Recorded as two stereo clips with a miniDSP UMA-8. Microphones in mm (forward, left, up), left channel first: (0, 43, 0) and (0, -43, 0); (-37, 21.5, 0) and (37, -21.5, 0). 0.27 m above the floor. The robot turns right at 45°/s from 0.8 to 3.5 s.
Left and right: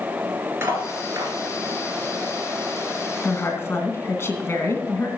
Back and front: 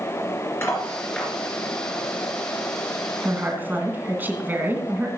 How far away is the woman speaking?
About 2.5 m.